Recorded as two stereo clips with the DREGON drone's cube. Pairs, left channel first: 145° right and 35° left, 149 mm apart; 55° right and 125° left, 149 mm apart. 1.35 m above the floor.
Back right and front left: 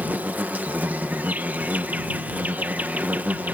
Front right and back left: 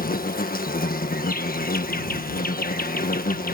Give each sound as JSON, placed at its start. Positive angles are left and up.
{"t": 0.0, "sound": "an insect", "azimuth_deg": -45}